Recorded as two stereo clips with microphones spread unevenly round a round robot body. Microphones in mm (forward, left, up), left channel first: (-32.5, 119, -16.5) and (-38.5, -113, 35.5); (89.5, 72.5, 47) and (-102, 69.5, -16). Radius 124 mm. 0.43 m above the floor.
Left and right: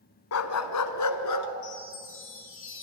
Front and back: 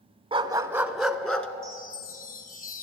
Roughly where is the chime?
Ahead left.